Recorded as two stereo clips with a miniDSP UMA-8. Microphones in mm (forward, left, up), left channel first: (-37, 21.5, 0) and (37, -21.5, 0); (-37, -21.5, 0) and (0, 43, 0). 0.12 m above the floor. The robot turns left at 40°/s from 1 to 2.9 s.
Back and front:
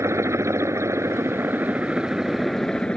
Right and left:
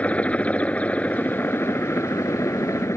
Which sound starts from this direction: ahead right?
A helicopter, at 0.0 s.